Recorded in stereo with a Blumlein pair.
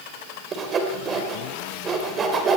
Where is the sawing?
25° right, 3.5 m.